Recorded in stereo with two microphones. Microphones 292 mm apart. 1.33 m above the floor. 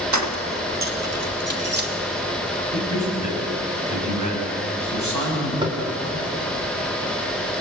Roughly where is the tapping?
Centre.